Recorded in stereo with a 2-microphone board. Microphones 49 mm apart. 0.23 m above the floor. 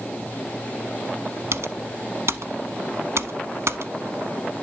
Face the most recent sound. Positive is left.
turn(degrees=-65)  # may be behind; listen again after turning